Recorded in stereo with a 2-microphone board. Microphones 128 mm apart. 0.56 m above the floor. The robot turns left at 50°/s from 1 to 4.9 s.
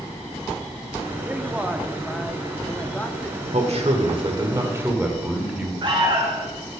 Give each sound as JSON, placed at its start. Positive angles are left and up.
{"t": 1.2, "sound": "a man speaking", "side_deg": -15, "distance_m": 0.7}
{"t": 3.5, "sound": "a man speaking", "azimuth_deg": -95, "distance_m": 1.7}
{"t": 5.8, "sound": "an alarm", "side_deg": -35, "distance_m": 1.9}